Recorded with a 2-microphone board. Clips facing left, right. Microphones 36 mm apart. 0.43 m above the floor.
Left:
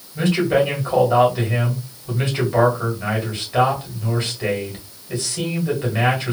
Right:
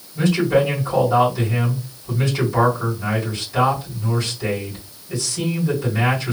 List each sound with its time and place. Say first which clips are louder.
0.1 s a man speaking: even; 40° left (ahead or behind), 1.4 m